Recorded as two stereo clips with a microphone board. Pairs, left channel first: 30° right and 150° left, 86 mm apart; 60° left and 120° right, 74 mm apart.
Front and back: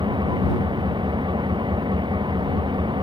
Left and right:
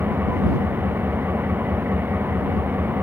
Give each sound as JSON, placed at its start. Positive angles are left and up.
{"t": 0.0, "sound": "an engine running", "azimuth_deg": 175}